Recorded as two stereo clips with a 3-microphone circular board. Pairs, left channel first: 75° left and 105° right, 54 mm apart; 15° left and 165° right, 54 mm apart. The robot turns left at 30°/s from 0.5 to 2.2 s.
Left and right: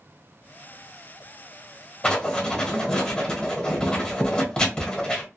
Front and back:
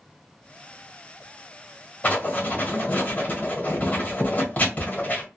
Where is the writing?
30° left, 1.3 m; by 5.2 s 25° left, 1.3 m.